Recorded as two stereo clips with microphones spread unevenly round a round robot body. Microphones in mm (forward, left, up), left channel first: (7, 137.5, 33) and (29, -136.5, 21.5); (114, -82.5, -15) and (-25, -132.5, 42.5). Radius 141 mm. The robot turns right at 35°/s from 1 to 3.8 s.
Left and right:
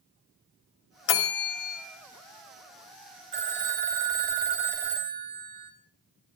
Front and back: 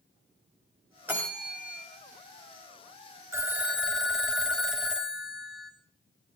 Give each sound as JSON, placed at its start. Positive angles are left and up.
{"t": 1.1, "sound": "a bell", "azimuth_deg": 120, "distance_m": 2.0}
{"t": 3.3, "sound": "a phone ringing", "azimuth_deg": -90, "distance_m": 3.0}